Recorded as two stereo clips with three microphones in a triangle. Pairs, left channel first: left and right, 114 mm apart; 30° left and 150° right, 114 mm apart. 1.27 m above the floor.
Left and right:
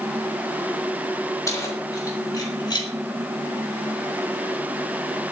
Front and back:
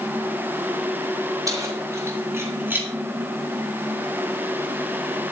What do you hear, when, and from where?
1.5 s keys jangling: 150° left, 3.5 m; by 2.9 s 135° left, 3 m